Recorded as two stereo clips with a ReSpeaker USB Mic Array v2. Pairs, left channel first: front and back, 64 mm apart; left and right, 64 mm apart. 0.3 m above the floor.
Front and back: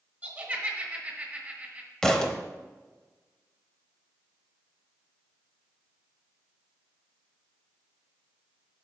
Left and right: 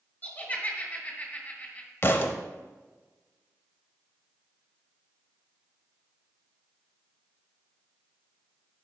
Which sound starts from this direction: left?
A thud, at 2.0 s.